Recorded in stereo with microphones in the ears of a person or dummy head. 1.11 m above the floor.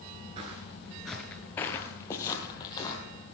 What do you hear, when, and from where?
0.4 s footsteps: 20° right (ahead or behind), 1.1 m; by 3.0 s 25° left (ahead or behind), 2.5 m